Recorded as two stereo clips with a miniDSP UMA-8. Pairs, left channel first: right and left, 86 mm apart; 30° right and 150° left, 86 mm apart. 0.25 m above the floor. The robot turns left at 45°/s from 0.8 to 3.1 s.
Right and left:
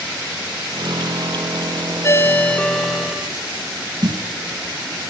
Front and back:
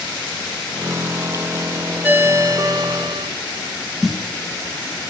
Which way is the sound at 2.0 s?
140° right.